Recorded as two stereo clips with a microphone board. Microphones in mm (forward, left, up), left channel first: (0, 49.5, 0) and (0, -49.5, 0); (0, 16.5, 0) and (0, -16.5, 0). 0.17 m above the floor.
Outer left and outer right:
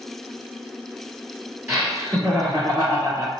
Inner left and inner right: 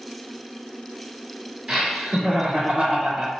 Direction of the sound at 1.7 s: 25° right (ahead or behind).